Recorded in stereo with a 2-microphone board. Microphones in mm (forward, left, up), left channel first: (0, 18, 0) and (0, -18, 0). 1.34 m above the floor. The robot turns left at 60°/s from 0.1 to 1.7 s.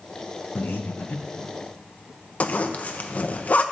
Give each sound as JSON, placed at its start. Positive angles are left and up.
{"t": 0.6, "sound": "breathing", "side_deg": 60, "distance_m": 0.9}
{"t": 2.4, "sound": "a zipper", "side_deg": 45, "distance_m": 0.6}